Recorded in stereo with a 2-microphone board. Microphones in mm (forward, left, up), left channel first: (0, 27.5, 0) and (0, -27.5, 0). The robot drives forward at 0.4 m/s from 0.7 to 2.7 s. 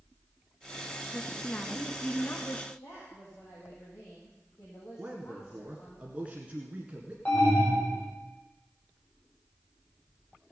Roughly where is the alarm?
Left.